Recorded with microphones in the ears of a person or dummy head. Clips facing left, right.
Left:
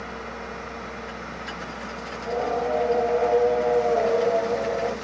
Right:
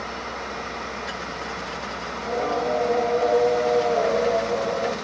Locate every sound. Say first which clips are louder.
2.1 s singing: even; 5° left (ahead or behind), 2.5 m